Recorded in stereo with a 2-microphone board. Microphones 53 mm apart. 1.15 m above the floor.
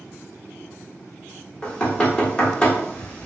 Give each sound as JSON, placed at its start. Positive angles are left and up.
{"t": 1.6, "sound": "knocking", "side_deg": 20, "distance_m": 0.9}